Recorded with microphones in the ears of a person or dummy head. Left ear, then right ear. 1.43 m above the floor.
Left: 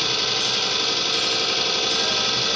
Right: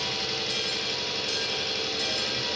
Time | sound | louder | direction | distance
0.0 | an engine running | left 7 dB | 80° left | 5 m